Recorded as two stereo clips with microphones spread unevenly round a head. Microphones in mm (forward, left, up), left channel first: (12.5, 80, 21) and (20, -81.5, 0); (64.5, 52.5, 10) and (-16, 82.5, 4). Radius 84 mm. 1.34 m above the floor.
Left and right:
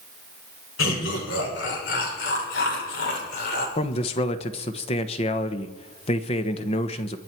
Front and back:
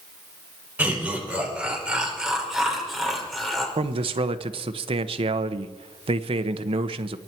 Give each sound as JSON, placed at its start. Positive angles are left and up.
{"t": 0.8, "sound": "laughter", "azimuth_deg": 90, "distance_m": 6.5}
{"t": 3.8, "sound": "a man speaking", "azimuth_deg": 150, "distance_m": 1.1}